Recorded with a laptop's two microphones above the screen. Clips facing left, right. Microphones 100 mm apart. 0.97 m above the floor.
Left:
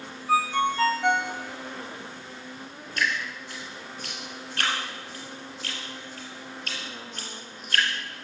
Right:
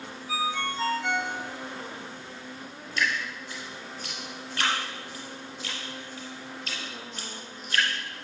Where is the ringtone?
70° left (ahead or behind), 1.0 m.